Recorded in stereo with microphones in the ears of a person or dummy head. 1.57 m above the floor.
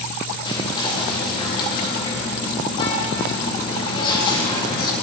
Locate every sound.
0.5 s whispering: 30° left (ahead or behind), 3.5 m